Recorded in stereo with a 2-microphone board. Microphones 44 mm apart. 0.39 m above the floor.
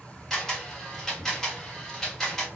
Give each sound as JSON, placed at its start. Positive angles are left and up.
{"t": 0.3, "sound": "a camera shutter", "side_deg": 10, "distance_m": 1.2}